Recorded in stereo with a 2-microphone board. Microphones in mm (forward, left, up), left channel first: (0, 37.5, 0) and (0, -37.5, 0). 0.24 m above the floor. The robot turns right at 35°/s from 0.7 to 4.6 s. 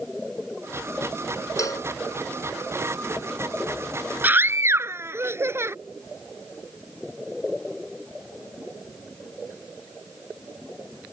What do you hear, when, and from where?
1.6 s a cowbell: 50° left (ahead or behind); by 1.9 s 60° left (ahead or behind)
4.2 s a scream: 25° right (ahead or behind); by 5.8 s 35° right (ahead or behind)